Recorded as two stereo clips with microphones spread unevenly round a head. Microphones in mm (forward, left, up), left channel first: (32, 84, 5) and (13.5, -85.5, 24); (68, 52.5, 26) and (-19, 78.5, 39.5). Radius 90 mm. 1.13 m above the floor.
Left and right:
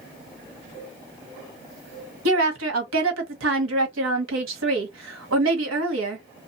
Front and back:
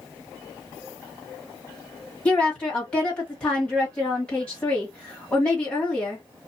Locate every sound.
2.2 s a woman speaking: 100° right, 1.3 m